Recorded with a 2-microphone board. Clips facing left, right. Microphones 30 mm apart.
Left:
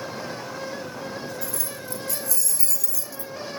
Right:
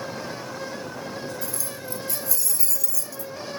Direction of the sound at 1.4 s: 30° right (ahead or behind).